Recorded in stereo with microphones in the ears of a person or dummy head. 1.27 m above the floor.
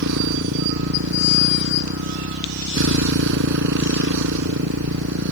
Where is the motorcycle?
70° right (ahead or behind).